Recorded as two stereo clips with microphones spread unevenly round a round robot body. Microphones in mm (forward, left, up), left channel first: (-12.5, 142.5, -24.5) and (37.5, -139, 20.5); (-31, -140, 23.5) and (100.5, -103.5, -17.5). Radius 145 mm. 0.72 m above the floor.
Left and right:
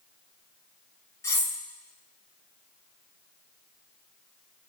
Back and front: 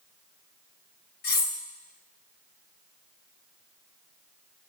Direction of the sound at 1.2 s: Straight behind.